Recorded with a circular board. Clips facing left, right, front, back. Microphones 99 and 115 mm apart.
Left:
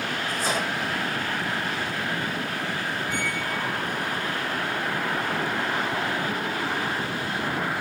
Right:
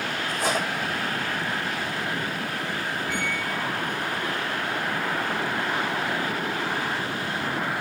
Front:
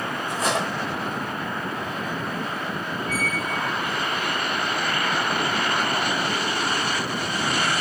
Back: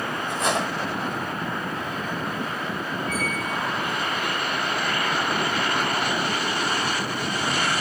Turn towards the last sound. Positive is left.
turn(degrees=-55)